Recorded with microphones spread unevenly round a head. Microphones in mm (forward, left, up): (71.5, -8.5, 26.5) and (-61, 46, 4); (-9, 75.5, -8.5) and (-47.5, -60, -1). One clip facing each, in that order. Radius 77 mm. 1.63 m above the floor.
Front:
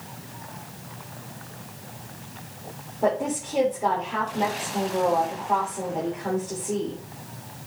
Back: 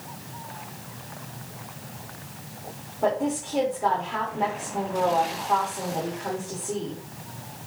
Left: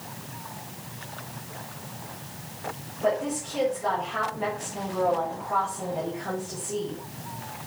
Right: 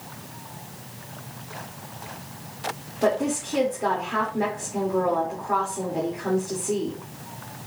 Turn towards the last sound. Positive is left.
turn(degrees=-105)